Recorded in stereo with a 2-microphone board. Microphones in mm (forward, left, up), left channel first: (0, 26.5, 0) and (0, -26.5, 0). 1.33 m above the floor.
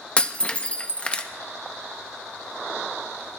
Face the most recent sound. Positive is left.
turn(degrees=25)  # may be behind; listen again after turning